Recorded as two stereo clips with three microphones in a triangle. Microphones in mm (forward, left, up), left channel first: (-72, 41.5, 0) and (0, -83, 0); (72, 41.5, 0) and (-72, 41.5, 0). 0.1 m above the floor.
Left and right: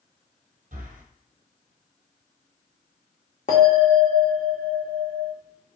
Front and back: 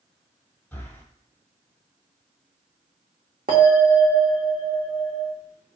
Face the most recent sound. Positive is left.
turn(degrees=155)